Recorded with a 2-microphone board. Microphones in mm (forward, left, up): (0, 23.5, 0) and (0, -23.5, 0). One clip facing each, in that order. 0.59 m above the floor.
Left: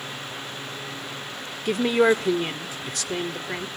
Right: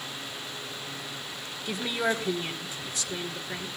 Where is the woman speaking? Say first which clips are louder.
Left 9 dB; 65° left (ahead or behind), 1.3 m.